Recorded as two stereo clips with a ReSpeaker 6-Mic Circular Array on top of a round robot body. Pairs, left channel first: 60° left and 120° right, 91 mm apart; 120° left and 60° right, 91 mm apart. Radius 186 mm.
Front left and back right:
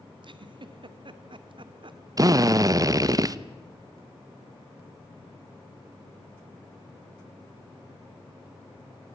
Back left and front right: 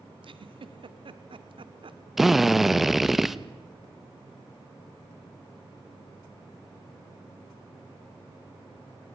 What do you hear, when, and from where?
0.2 s a giggle: 85° right, 1.5 m
2.2 s a drill: 145° right, 1.2 m